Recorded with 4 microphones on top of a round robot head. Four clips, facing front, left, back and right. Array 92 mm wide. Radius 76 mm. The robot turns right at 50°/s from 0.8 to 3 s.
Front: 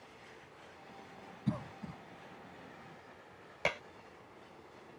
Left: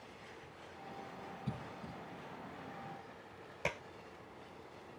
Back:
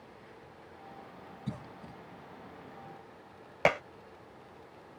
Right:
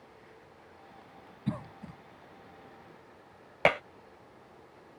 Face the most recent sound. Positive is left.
turn(degrees=-125)